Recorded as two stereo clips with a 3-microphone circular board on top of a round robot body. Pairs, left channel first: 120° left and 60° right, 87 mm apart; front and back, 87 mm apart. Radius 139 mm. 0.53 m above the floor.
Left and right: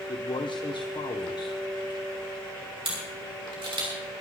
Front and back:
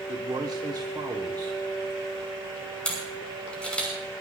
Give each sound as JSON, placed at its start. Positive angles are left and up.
{"t": 0.1, "sound": "a man speaking", "azimuth_deg": 140, "distance_m": 1.3}
{"t": 2.9, "sound": "a camera shutter", "azimuth_deg": -75, "distance_m": 5.5}